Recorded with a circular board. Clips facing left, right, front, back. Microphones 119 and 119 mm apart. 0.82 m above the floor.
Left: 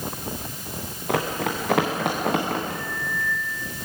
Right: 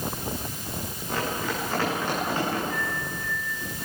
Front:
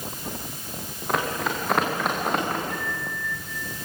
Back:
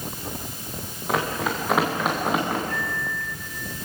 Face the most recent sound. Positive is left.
turn(degrees=70)